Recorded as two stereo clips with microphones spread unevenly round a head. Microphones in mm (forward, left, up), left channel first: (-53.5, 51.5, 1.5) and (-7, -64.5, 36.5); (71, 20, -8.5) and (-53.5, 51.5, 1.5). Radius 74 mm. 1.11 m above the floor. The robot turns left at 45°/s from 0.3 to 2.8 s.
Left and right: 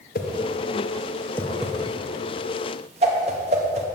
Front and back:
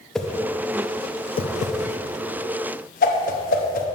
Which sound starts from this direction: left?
A whoosh, at 0.1 s.